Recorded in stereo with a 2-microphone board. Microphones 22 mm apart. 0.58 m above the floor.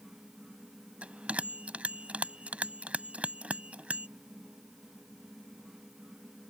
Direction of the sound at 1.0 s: 75° right (ahead or behind).